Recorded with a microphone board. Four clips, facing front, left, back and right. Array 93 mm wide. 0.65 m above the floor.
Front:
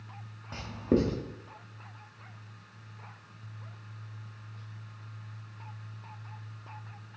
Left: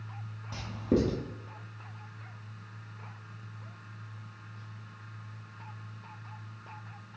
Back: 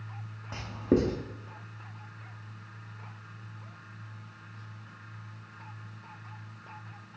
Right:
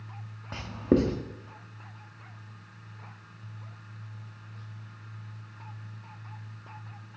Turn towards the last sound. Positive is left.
turn(degrees=-105)